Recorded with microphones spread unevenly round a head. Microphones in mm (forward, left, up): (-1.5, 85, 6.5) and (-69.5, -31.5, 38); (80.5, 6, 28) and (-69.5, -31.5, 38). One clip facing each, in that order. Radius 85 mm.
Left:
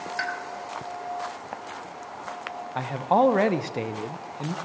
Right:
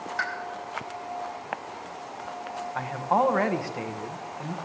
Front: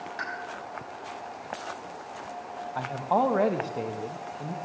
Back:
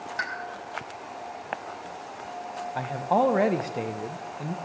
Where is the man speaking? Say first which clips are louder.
Left 3 dB, back 2 dB; 125° left, 0.7 m.